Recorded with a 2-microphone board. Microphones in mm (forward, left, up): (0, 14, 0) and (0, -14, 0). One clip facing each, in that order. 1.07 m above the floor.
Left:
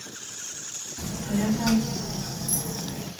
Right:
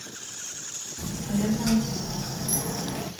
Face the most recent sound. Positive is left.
turn(degrees=-65)  # may be behind; listen again after turning